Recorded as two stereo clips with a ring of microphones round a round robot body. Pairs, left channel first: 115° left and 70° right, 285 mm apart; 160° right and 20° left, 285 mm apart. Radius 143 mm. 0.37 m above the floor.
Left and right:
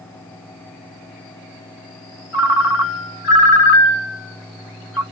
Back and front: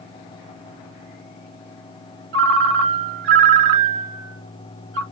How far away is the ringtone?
About 1.3 m.